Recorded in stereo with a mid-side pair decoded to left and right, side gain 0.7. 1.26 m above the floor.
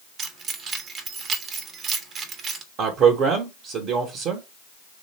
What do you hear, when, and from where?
0.2 s keys jangling: 45° right, 1.3 m
2.8 s a man speaking: 55° right, 1.5 m